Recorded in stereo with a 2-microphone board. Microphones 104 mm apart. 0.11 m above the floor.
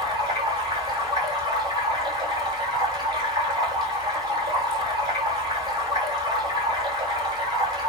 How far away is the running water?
About 1.1 m.